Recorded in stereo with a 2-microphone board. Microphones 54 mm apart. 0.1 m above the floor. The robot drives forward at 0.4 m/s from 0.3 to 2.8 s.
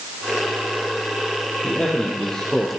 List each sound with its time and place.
1.6 s a man speaking: 20° left (ahead or behind), 2.5 m; by 2.7 s 15° left (ahead or behind), 3 m